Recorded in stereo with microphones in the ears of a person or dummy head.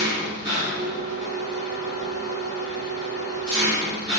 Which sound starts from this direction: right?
An engine running, at 0.0 s.